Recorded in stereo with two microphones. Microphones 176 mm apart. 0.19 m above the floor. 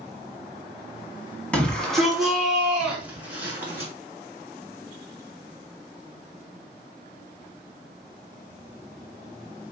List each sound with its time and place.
1.5 s a shout: 5° left (ahead or behind), 1.2 m; by 3.9 s 10° right (ahead or behind), 2.5 m